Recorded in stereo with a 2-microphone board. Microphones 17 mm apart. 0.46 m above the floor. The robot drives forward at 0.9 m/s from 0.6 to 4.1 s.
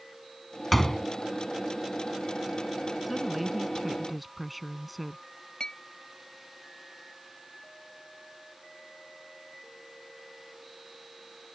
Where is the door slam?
10° left (ahead or behind).